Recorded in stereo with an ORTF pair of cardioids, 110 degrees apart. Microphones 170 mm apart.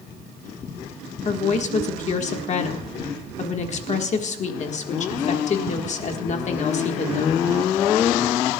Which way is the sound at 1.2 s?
45° left.